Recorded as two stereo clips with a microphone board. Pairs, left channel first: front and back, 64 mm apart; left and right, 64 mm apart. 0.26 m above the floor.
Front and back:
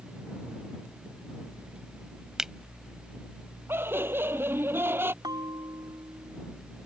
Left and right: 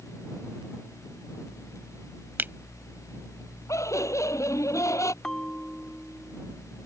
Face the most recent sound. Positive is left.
turn(degrees=170)